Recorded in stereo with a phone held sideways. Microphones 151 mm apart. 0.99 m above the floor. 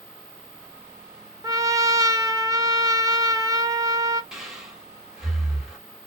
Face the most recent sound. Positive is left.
turn(degrees=-5)  # may be behind; listen again after turning